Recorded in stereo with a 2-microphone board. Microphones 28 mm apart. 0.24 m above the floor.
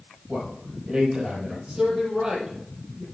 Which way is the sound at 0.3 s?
30° right (ahead or behind).